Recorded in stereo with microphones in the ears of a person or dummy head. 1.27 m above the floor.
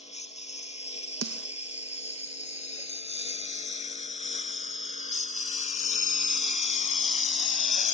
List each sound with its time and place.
0.0 s a lawn mower: 35° left (ahead or behind); by 7.9 s 40° left (ahead or behind)
1.2 s a snare drum: 75° right (ahead or behind)